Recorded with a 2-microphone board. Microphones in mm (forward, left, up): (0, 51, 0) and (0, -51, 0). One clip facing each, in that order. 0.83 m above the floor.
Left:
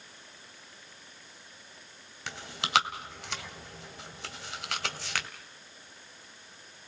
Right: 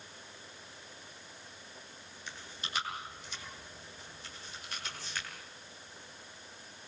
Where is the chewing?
80° left, 2 m.